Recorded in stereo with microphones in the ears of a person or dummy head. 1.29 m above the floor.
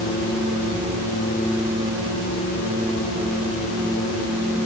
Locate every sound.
Only background noise.